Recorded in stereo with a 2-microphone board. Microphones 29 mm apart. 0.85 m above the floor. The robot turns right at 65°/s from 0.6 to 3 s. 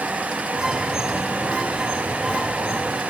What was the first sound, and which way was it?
Only background noise.